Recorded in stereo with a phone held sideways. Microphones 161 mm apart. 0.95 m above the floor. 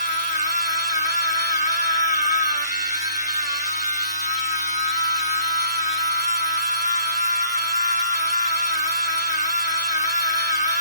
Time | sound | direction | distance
0.0 | a machine running | 50° left (ahead or behind) | 1.8 m